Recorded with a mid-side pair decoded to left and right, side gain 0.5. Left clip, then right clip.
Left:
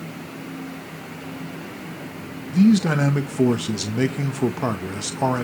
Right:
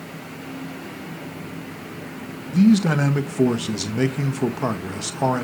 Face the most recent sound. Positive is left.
turn(degrees=0)